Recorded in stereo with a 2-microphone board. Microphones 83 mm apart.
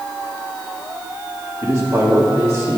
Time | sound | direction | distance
1.6 | a man speaking | 35° right (ahead or behind) | 2.5 m